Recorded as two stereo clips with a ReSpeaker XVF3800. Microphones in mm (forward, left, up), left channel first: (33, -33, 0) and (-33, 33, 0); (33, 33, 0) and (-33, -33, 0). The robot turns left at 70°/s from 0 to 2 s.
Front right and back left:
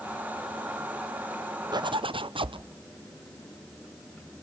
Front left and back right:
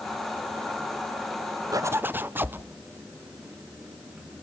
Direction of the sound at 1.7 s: 175° left.